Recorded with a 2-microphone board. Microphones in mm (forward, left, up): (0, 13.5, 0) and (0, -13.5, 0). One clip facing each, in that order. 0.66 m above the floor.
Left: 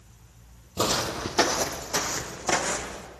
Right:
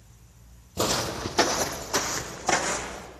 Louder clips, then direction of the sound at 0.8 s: Left 1 dB; 15° left (ahead or behind).